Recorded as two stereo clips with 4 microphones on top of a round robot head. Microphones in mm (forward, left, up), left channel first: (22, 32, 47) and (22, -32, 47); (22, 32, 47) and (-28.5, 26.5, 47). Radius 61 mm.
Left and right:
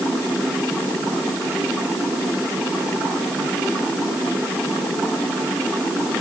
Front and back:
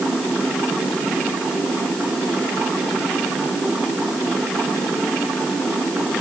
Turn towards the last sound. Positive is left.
No sound to turn to.